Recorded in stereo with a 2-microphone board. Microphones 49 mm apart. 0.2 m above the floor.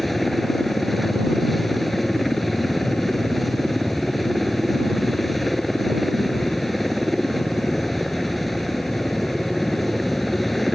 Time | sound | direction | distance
0.0 | a helicopter | 5° left (ahead or behind) | ?